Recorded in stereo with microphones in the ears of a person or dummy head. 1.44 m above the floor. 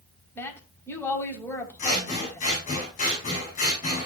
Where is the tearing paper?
I don't hear tearing paper.